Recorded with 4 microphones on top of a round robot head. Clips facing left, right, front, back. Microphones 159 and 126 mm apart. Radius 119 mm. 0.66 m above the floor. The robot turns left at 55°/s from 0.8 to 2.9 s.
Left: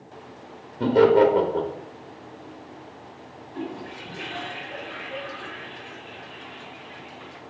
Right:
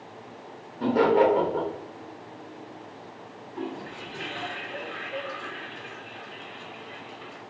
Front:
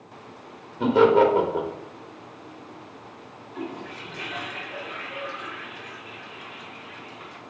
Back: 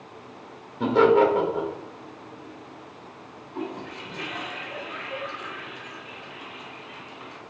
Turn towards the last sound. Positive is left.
turn(degrees=115)